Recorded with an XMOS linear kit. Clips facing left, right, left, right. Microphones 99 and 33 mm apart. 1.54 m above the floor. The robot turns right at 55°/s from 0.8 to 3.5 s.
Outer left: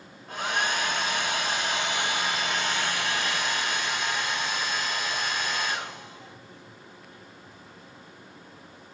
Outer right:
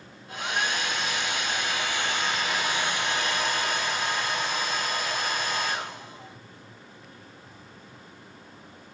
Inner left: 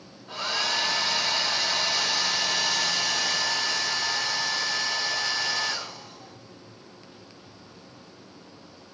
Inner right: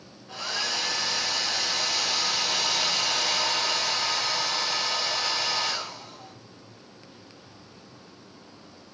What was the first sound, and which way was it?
A hair dryer, 90° left.